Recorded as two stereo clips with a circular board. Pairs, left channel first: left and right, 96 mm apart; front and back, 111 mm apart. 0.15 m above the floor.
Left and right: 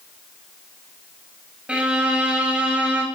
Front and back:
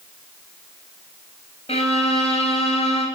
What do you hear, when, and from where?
1.7 s a violin: 10° right, 0.9 m